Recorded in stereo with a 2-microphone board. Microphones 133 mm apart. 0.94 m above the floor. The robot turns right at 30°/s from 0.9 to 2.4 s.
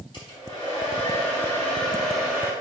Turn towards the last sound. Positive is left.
turn(degrees=-175)